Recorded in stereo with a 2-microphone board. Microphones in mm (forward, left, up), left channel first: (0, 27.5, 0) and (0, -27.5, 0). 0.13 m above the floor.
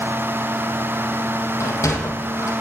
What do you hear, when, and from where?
1.6 s a sliding door: 75° left (ahead or behind), 2.5 m